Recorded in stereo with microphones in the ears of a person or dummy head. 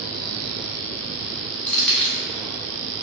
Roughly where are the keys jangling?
Centre.